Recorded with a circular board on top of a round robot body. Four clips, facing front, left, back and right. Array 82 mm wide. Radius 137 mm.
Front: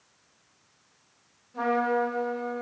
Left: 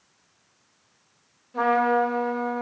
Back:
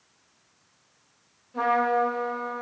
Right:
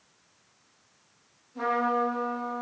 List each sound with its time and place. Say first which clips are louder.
1.5 s a trumpet: left 6 dB, back 3 dB; 115° left, 2.5 m